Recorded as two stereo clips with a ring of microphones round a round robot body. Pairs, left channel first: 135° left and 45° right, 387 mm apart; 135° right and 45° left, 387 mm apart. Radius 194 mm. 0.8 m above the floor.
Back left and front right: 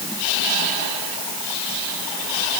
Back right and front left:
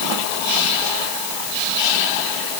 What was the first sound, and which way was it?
Only background noise.